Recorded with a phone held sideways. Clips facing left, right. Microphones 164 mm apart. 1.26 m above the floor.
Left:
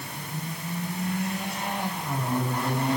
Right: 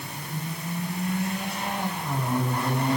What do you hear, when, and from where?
Only background noise.